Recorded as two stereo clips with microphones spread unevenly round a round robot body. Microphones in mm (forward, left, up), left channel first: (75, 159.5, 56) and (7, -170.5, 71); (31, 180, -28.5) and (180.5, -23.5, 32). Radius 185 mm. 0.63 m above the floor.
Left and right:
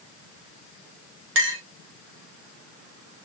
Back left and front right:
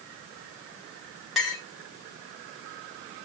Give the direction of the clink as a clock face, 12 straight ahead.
5 o'clock.